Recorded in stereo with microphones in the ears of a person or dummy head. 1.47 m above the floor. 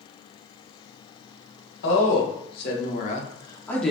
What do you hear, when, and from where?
1.8 s a woman speaking: 75° left (ahead or behind), 1.1 m; by 3.9 s centre (ahead or behind), 0.5 m